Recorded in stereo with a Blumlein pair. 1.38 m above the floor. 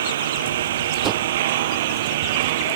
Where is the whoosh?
30° right.